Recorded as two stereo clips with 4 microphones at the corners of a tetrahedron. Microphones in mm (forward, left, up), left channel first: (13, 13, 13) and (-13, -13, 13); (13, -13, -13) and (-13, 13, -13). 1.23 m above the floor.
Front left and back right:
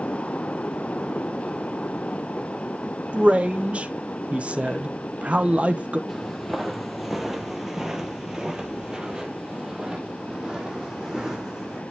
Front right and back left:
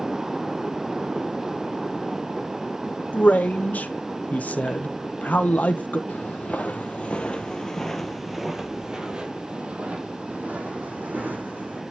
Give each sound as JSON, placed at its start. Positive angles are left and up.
{"t": 3.1, "sound": "a man speaking", "azimuth_deg": -85, "distance_m": 1.1}
{"t": 6.1, "sound": "footsteps", "azimuth_deg": -45, "distance_m": 1.8}